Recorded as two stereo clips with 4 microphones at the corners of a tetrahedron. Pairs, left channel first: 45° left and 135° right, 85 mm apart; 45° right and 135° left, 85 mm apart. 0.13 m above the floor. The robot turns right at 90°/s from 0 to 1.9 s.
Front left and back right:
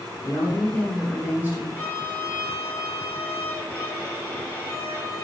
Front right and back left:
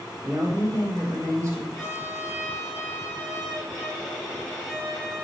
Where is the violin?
20° left, 1.3 m; by 5.2 s 35° left, 1.3 m.